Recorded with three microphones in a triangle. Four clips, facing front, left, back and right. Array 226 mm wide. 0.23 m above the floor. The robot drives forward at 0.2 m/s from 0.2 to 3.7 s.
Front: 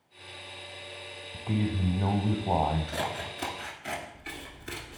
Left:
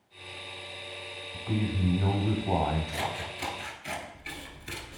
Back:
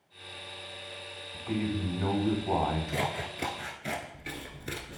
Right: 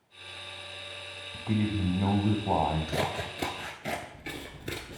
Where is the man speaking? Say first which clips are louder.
Right 2 dB, front 1 dB; 30° right, 1.4 m; by 3.0 s 45° right, 1.2 m.